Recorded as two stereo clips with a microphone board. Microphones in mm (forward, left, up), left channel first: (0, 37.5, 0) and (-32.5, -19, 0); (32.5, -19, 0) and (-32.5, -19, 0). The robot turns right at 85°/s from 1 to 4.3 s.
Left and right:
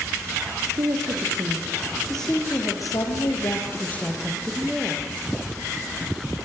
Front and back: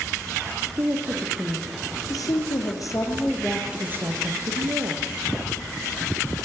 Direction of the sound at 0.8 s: 125° right.